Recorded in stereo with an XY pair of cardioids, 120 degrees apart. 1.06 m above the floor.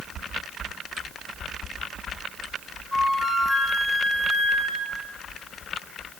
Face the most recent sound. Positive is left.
turn(degrees=10)